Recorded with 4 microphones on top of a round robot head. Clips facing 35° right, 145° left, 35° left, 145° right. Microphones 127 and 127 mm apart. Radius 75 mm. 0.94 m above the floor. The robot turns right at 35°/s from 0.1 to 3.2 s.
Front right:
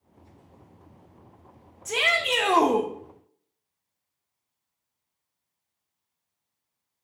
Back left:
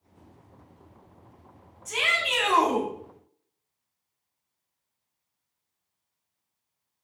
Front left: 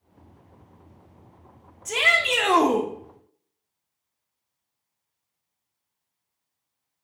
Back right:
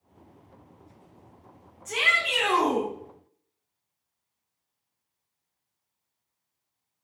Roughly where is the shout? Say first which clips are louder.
Front right 4 dB, front left 5 dB; ahead.